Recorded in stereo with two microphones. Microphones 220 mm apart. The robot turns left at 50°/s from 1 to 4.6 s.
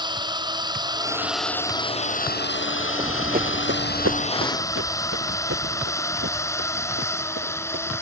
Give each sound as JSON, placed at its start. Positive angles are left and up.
{"t": 0.0, "sound": "a drone", "side_deg": -20}
{"t": 3.0, "sound": "running footsteps", "side_deg": -20}